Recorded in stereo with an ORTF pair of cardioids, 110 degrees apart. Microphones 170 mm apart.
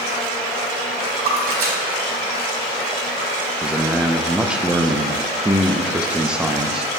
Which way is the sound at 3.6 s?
5° right.